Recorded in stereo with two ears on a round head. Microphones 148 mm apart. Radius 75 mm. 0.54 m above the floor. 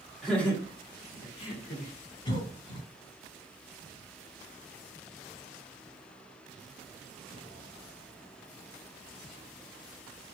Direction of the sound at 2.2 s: 30° left (ahead or behind).